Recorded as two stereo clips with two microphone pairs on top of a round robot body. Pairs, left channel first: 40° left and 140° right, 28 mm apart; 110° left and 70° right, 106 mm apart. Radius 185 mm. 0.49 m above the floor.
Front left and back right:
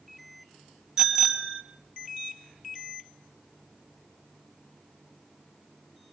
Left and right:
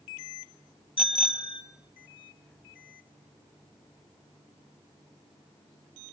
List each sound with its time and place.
1.0 s a bicycle bell: 140° left, 3.5 m